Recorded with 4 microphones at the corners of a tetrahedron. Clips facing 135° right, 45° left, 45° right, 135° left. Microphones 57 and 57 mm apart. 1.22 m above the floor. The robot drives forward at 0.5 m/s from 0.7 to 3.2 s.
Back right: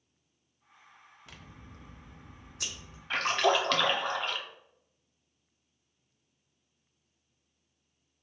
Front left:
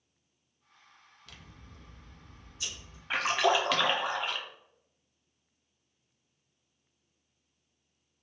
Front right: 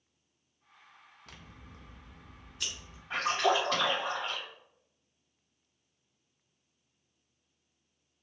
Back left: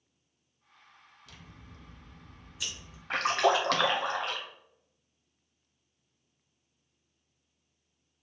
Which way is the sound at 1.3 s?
70° right.